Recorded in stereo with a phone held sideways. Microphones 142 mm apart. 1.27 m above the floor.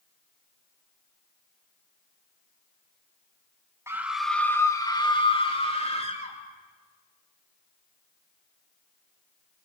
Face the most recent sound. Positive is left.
turn(degrees=50)  # may be behind; listen again after turning